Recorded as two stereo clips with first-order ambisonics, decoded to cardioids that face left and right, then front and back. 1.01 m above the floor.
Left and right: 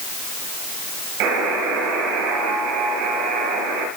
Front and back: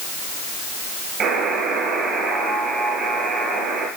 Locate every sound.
1.2 s a buzzer: 125° right, 7.5 m